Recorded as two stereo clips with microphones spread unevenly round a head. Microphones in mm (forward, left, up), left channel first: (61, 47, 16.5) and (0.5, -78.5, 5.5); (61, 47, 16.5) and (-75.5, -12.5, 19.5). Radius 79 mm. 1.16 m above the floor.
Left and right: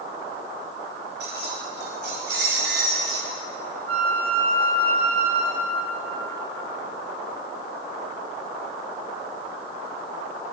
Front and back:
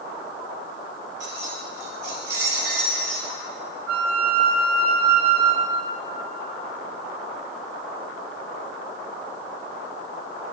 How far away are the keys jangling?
About 2 m.